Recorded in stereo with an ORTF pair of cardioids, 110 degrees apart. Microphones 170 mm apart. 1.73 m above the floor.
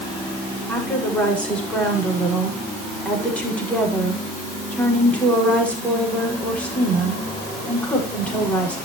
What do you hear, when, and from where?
0.7 s a woman speaking: 10° left, 6.5 m